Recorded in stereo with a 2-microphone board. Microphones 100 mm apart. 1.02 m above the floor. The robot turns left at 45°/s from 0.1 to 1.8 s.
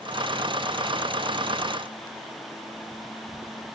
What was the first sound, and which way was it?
Only background noise.